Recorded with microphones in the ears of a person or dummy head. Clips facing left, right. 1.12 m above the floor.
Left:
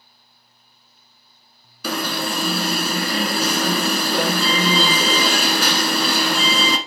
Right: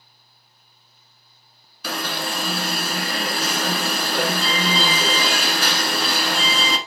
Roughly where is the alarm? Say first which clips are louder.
Left 4 dB; left.